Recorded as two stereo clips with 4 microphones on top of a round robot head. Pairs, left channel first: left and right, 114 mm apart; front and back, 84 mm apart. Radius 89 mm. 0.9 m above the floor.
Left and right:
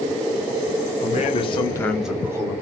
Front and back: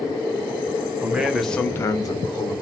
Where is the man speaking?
105° left, 1.2 m; by 2.5 s 35° right, 1.1 m.